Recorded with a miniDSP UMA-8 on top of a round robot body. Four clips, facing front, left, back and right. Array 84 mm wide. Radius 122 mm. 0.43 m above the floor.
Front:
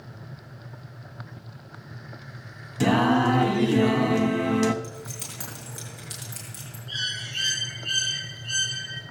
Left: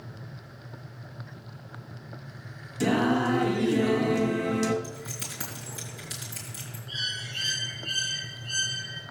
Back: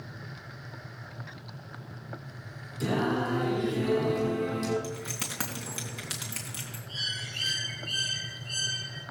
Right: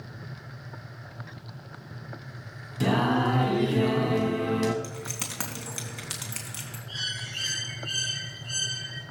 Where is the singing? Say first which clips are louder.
Even, front 8 dB; 10° right, 1.0 m.